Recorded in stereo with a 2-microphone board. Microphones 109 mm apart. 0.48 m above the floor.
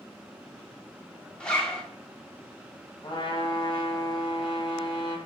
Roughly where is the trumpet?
Left.